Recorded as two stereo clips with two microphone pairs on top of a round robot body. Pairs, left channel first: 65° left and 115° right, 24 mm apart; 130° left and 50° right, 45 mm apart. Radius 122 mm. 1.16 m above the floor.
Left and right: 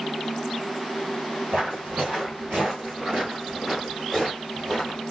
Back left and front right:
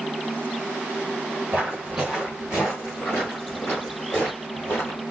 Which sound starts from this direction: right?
Footsteps, at 1.5 s.